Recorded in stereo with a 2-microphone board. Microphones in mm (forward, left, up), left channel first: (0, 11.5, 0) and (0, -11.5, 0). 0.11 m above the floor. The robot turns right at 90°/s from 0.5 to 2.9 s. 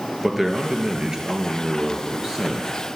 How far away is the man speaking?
About 2 m.